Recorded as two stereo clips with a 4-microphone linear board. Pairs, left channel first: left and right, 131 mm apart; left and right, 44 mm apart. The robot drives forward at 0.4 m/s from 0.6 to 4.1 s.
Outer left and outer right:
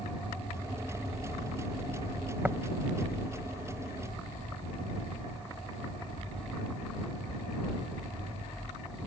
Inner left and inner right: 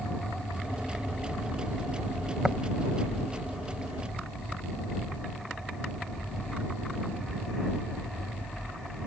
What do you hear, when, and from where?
2.4 s tapping: 10° right (ahead or behind)